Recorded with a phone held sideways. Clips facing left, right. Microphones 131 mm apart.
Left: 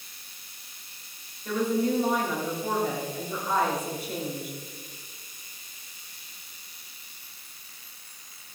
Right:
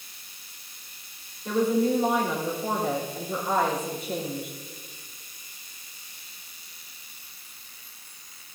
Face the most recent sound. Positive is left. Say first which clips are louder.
# right 3 dB
turn(degrees=-25)  # may be behind; listen again after turning